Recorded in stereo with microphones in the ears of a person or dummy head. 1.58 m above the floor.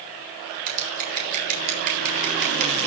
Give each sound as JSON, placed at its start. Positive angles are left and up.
{"t": 0.7, "sound": "scissors", "side_deg": -50, "distance_m": 7.5}